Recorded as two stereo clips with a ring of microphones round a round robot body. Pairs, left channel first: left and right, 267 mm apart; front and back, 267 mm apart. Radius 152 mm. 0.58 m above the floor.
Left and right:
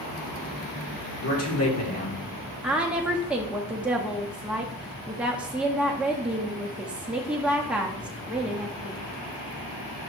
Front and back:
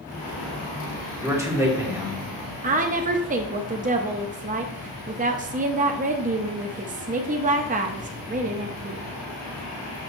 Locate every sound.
1.2 s a man speaking: 105° left, 2 m
2.6 s a woman speaking: 170° right, 0.6 m